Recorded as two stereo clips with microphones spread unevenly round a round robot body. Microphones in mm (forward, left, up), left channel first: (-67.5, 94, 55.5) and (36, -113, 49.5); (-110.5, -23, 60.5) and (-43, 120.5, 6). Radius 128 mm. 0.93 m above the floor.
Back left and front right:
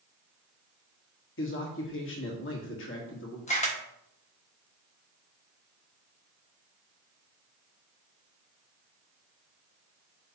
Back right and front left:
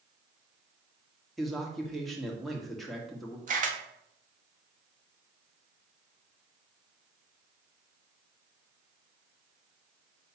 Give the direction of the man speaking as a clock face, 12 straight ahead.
7 o'clock.